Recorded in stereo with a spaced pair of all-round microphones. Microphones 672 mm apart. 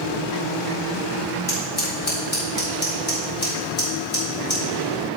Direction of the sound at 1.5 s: 55° left (ahead or behind).